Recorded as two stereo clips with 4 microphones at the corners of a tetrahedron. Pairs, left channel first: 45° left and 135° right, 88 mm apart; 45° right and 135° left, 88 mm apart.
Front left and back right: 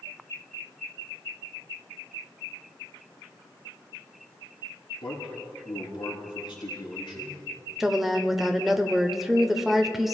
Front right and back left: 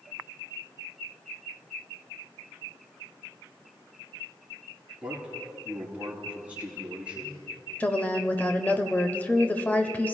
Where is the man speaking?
60° left, 4.5 m.